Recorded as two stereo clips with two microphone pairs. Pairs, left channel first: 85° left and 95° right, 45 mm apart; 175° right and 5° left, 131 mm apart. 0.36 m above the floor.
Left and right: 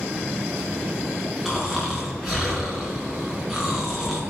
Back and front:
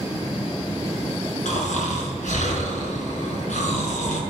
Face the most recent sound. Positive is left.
turn(degrees=170)